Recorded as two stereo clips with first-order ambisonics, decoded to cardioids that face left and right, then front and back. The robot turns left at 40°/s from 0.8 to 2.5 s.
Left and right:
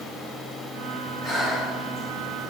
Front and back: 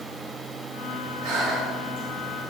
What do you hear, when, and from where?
1.2 s breathing: 155° right, 3.5 m; by 2.1 s 170° left, 3.5 m